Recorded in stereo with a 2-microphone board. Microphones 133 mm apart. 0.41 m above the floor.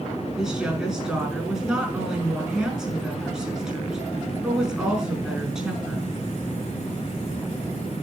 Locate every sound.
0.4 s a woman speaking: 5° right (ahead or behind), 7 m